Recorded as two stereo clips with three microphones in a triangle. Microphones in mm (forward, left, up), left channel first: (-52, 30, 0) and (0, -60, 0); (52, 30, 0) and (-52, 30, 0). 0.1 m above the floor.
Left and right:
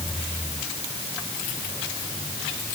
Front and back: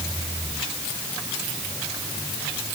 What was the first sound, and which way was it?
Only background noise.